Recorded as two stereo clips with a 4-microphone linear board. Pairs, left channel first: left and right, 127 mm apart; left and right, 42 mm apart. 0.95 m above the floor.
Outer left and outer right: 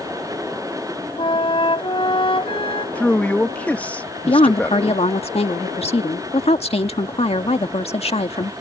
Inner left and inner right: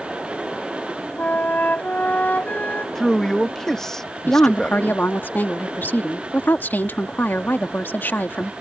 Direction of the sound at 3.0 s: 10° left (ahead or behind).